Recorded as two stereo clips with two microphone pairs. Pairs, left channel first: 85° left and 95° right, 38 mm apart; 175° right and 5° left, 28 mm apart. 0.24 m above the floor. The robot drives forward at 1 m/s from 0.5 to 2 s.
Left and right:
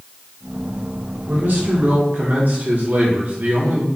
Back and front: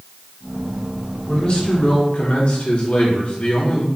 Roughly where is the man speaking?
Behind right.